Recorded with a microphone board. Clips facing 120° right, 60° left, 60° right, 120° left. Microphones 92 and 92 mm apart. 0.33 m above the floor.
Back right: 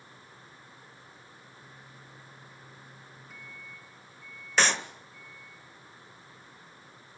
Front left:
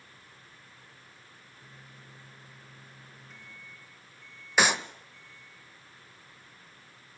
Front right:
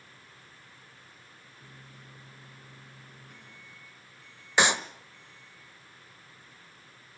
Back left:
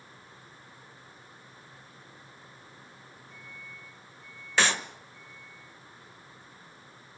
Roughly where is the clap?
Ahead.